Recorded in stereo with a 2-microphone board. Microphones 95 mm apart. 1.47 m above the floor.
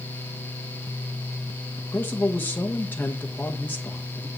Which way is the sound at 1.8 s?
20° left (ahead or behind).